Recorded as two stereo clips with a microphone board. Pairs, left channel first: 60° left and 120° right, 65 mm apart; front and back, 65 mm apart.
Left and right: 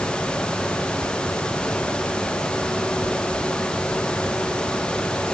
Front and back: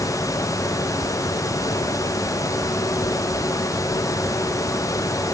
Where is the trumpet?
I don't hear a trumpet.